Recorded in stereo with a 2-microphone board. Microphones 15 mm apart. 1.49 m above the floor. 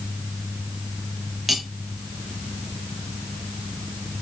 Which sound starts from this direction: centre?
Cutlery clinking, at 1.5 s.